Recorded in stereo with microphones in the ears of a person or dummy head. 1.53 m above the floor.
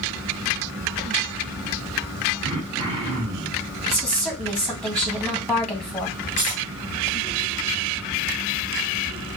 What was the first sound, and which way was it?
Throat clearing, 25° right (ahead or behind).